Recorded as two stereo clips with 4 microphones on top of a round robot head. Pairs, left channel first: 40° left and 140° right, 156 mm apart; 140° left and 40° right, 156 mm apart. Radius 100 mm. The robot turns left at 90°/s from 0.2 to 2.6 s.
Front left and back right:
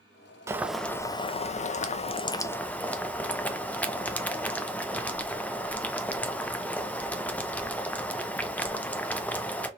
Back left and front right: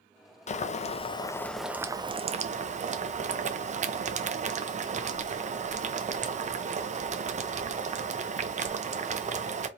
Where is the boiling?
155° left, 0.5 m; by 9.7 s 40° right, 0.5 m.